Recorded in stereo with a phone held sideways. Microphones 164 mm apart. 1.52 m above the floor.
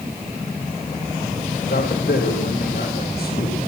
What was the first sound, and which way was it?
A man speaking, 80° left.